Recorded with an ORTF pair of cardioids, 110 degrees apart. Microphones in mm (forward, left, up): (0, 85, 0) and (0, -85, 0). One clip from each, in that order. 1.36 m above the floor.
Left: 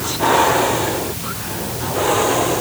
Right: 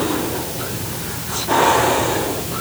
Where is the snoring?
No snoring in this recording.